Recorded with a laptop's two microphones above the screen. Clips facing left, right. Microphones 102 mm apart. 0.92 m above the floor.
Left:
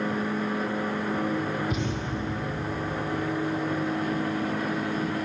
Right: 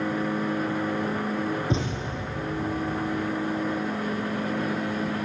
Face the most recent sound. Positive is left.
turn(degrees=-30)  # may be behind; listen again after turning